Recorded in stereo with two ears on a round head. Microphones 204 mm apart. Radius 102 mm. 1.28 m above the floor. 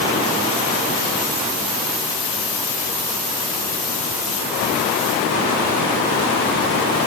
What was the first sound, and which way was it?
Only background noise.